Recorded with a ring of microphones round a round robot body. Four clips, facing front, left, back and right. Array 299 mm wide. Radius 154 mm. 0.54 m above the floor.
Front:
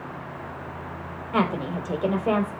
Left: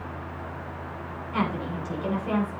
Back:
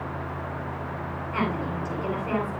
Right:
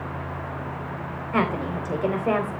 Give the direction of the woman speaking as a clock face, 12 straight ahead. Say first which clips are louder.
Right 4 dB, front 4 dB; 2 o'clock.